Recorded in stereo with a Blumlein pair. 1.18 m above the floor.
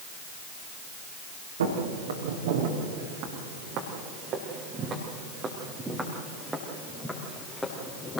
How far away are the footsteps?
About 4.5 m.